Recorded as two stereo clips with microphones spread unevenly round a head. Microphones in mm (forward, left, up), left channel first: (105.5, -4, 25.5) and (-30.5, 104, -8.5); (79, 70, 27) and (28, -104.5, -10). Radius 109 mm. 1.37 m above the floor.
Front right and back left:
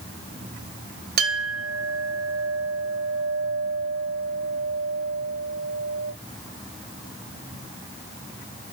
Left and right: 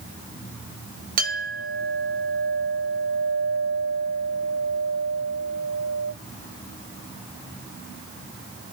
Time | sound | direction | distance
1.2 | a clink | 165° right | 1.4 m